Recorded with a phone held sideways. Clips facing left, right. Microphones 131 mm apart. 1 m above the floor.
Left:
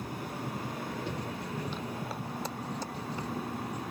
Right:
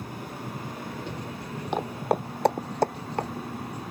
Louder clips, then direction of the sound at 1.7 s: Right 10 dB; 65° right (ahead or behind).